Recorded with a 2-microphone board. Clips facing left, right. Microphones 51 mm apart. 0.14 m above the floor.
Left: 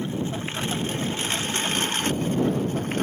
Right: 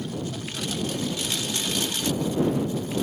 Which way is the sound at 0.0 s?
30° left (ahead or behind).